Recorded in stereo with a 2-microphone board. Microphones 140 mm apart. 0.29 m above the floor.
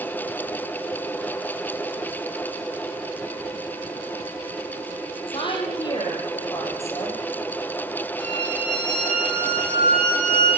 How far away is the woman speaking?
About 7 m.